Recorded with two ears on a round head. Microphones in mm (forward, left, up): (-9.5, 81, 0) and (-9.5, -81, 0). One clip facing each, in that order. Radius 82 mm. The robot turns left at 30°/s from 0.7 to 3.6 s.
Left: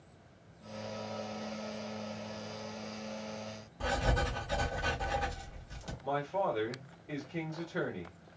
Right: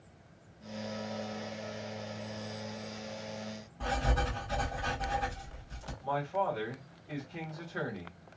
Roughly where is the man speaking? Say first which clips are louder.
Even; centre.